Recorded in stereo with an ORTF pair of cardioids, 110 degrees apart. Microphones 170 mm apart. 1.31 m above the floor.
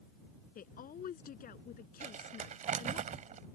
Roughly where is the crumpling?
Ahead right.